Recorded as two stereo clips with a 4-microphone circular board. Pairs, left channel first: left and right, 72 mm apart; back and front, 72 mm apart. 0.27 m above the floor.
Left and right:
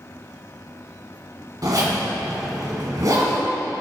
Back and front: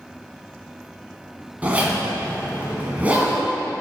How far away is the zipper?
About 1.9 m.